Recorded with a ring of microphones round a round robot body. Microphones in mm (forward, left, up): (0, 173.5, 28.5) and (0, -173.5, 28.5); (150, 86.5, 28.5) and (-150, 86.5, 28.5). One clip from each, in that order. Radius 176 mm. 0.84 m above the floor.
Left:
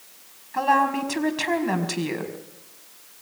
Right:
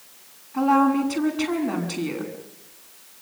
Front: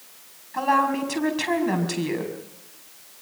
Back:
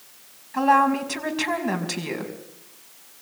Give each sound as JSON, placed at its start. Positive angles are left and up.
{"t": 0.5, "sound": "a woman speaking", "azimuth_deg": 105, "distance_m": 5.0}